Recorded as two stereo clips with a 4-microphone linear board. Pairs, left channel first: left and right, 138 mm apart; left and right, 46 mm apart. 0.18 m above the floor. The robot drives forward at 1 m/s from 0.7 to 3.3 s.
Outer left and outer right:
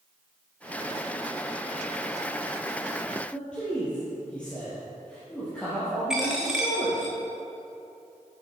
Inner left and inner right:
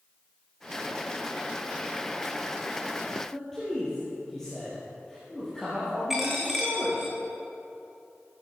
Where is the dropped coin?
5° right (ahead or behind), 2.5 m.